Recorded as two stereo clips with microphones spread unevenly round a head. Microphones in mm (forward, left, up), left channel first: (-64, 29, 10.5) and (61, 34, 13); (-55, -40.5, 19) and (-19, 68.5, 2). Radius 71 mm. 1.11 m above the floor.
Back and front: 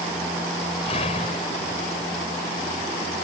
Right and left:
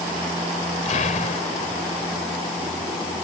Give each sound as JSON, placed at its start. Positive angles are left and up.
{"t": 0.8, "sound": "an explosion", "azimuth_deg": -125}